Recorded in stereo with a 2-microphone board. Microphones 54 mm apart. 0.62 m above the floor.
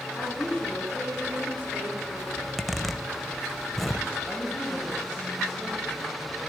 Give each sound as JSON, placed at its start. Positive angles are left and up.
{"t": 0.2, "sound": "a woman speaking", "side_deg": -30, "distance_m": 7.0}
{"t": 2.4, "sound": "a zipper", "side_deg": 0, "distance_m": 0.6}
{"t": 4.2, "sound": "a woman speaking", "side_deg": -10, "distance_m": 3.0}